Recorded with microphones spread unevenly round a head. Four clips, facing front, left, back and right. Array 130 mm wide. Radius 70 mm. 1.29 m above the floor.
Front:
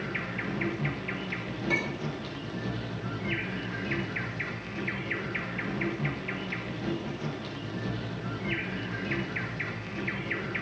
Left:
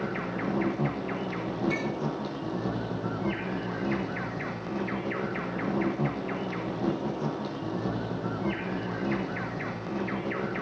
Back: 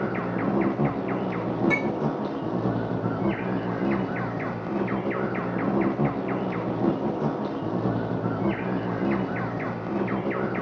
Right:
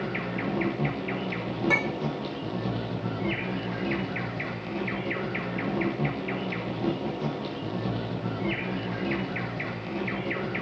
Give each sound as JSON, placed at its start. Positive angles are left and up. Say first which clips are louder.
{"t": 0.0, "sound": "an insect", "louder": "even, back 9 dB", "azimuth_deg": 180, "distance_m": 1.0}
{"t": 1.7, "sound": "a clink", "louder": "right 2 dB, back 7 dB", "azimuth_deg": -120, "distance_m": 3.5}